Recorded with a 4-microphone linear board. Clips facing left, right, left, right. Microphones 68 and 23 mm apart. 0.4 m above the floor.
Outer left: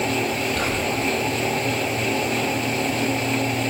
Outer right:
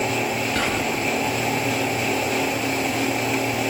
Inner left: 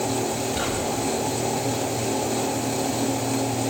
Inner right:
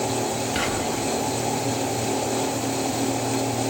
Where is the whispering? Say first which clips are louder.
Even, inner right 1 dB; 75° right (ahead or behind), 8.5 m.